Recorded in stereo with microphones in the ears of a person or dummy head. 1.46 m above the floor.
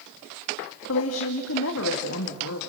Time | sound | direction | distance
0.9 | a woman speaking | 80° left | 2.0 m